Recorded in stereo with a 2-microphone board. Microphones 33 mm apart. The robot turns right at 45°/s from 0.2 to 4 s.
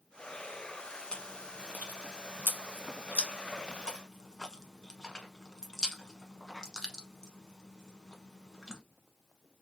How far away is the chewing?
About 0.9 m.